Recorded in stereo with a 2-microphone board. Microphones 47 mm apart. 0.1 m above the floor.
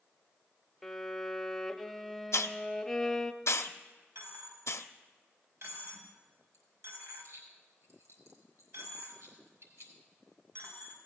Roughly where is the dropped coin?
Right.